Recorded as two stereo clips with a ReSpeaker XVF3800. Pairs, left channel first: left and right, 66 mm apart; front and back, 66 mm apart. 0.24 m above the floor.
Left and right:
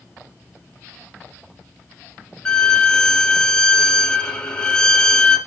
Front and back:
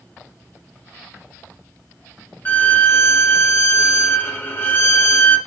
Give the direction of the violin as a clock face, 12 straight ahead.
11 o'clock.